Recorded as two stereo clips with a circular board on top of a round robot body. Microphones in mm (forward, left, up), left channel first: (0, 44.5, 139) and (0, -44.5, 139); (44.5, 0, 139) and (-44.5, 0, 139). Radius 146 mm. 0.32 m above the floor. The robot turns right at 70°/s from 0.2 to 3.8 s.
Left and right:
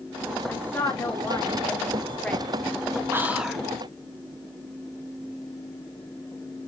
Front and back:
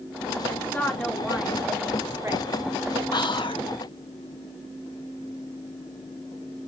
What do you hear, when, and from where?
0.5 s a woman speaking: 35° left, 1.6 m; by 3.0 s 150° right, 1.6 m
3.1 s whispering: 30° right, 1.8 m; by 3.7 s 10° left, 1.8 m